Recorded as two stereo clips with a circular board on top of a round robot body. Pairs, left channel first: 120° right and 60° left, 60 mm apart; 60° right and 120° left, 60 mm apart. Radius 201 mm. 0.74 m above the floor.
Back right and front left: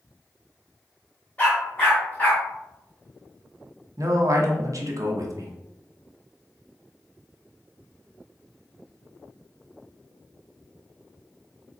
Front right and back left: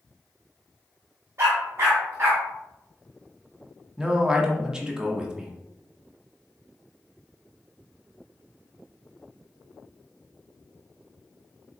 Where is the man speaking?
45° left, 1.0 m.